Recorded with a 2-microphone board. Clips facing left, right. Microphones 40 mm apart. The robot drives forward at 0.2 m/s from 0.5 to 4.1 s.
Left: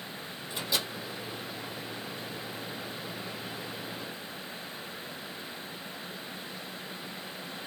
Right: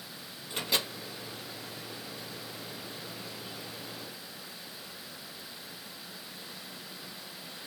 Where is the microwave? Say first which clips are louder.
Right 1 dB; 50° right (ahead or behind), 1.6 m.